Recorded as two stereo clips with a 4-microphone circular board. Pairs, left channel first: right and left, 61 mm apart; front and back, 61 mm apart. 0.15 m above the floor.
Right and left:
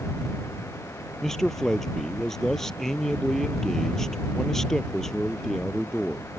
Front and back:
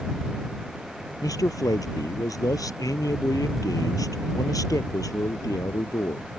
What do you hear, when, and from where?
1.2 s a man speaking: 5° right